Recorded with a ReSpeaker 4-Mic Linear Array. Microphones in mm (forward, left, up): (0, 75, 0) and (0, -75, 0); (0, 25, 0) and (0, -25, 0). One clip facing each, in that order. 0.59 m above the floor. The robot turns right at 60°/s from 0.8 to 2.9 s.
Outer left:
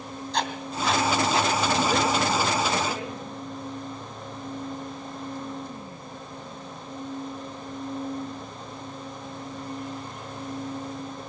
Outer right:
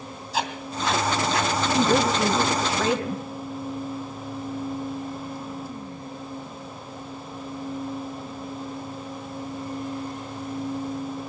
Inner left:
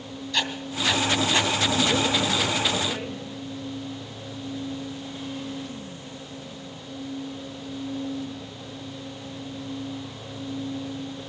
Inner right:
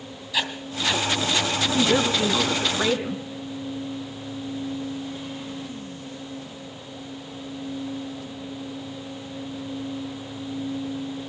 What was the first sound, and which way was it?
Writing, 5° right (ahead or behind).